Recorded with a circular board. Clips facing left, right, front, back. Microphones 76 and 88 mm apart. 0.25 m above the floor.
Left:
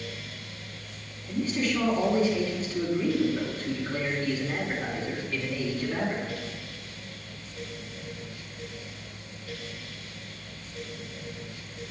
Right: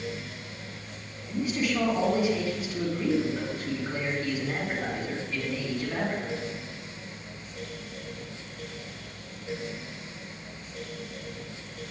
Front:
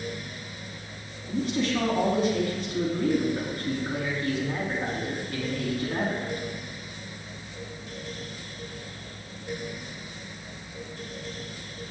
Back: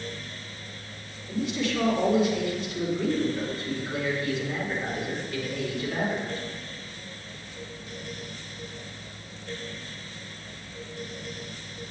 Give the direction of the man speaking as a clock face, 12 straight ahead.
1 o'clock.